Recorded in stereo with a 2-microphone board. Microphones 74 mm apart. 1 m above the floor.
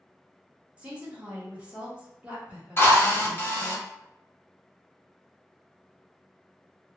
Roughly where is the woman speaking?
Centre.